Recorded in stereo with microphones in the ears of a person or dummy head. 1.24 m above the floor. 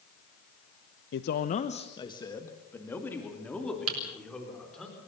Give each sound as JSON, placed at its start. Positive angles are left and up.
{"t": 1.1, "sound": "a man speaking", "side_deg": 60, "distance_m": 0.7}
{"t": 3.9, "sound": "typing on a keyboard", "side_deg": -85, "distance_m": 4.5}